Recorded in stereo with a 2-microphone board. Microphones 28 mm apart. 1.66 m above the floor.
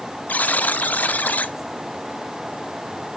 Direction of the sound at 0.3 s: 75° left (ahead or behind).